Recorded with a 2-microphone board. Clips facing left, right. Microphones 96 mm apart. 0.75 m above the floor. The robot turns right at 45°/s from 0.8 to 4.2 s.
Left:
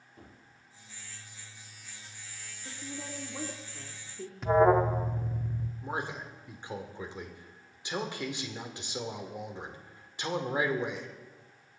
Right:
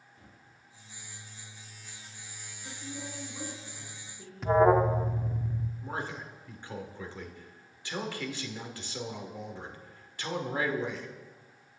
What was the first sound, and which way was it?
A gunshot, 55° left (ahead or behind).